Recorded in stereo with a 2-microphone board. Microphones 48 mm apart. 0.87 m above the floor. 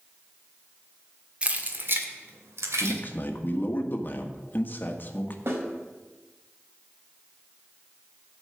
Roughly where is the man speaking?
Left.